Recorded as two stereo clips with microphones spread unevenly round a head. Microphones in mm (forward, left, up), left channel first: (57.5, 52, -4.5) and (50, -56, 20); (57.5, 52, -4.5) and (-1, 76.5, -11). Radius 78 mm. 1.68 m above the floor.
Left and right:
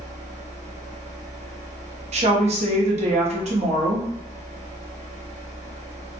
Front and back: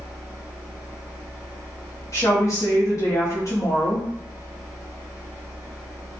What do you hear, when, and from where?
0.0 s a fan: 130° right, 0.9 m
2.1 s a woman speaking: 85° right, 1.0 m